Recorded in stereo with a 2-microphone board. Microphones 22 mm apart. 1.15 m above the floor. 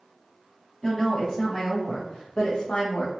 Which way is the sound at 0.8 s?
20° left (ahead or behind).